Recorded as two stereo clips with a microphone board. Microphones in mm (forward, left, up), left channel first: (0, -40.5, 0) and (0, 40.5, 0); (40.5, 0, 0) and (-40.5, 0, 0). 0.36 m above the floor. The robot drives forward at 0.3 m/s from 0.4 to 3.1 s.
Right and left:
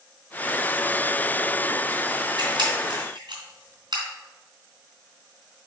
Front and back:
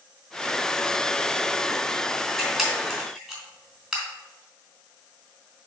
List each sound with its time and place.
2.4 s a camera shutter: 90° left, 3 m; by 4.0 s 95° left, 3 m